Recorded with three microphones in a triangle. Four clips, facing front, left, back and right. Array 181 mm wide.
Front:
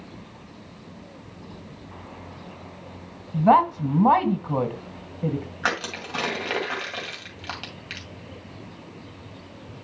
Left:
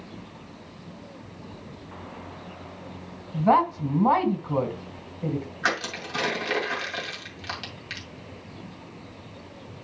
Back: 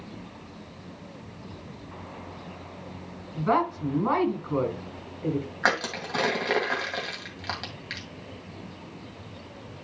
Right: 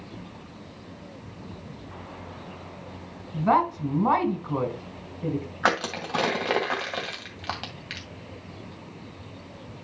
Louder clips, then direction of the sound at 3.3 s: Left 2 dB, front 7 dB; 5° left.